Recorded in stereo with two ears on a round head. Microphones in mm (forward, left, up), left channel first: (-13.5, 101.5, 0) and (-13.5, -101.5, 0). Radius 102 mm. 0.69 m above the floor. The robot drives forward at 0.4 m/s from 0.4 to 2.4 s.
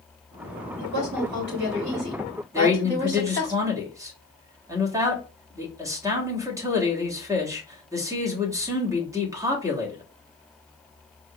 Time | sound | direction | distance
0.8 | a woman speaking | 55° right (ahead or behind) | 3.5 m
2.5 | a man speaking | 15° right (ahead or behind) | 1.5 m